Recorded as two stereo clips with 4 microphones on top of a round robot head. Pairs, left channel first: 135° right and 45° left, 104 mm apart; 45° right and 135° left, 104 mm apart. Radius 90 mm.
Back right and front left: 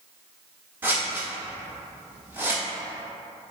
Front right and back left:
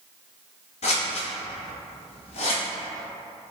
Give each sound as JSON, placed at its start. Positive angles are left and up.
{"t": 0.8, "sound": "scissors", "azimuth_deg": -25, "distance_m": 0.8}